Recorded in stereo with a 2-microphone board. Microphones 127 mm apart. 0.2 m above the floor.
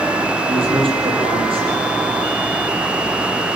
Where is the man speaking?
45° right (ahead or behind), 7 m.